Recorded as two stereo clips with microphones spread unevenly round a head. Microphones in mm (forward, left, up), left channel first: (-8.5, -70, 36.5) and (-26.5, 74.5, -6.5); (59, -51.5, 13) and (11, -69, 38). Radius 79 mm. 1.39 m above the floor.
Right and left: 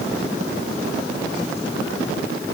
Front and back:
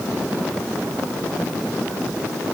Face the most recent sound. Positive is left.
No sound to turn to.